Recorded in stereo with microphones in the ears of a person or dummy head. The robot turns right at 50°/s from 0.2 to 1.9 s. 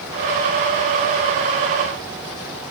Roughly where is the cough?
I don't hear a cough.